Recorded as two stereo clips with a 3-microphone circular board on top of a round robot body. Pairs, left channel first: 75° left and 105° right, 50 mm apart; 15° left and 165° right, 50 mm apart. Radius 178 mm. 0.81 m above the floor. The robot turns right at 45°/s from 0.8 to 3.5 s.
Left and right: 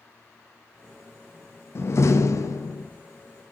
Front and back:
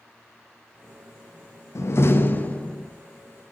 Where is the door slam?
40° left, 1.0 m; by 2.9 s 90° left, 1.0 m.